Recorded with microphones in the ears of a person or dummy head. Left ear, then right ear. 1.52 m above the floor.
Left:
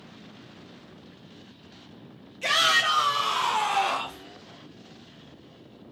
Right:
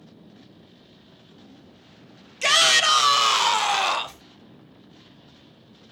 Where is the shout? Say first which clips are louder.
Right 4 dB; 65° right (ahead or behind), 0.6 m; by 4.2 s 35° right (ahead or behind), 1.0 m.